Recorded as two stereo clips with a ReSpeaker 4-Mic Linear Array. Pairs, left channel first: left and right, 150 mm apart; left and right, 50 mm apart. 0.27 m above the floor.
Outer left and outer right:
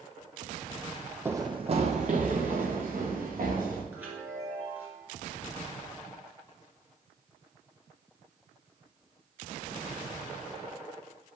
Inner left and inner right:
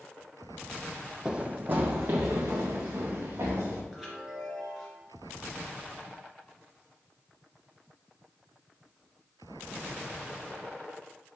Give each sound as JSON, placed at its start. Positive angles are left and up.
{"t": 1.2, "sound": "running footsteps", "side_deg": -15, "distance_m": 0.6}
{"t": 3.9, "sound": "a chime", "side_deg": -10, "distance_m": 3.0}